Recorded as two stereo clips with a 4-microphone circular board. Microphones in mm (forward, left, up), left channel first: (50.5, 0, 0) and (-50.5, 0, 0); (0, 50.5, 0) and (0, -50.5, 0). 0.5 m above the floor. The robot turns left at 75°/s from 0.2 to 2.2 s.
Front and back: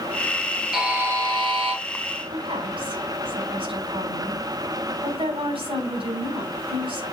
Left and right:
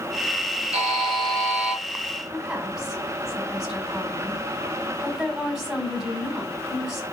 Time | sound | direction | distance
0.7 | a buzzer | 95° right | 2.5 m
2.3 | a woman speaking | 175° right | 4 m